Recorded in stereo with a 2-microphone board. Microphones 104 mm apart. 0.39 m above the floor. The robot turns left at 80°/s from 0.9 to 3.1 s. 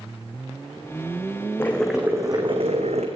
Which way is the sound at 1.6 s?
20° left.